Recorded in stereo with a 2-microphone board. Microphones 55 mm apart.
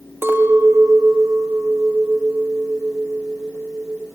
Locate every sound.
0.2 s a clink: 40° right (ahead or behind), 2 m